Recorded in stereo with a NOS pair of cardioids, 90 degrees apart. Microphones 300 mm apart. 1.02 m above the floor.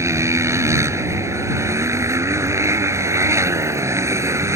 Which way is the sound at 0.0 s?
10° right.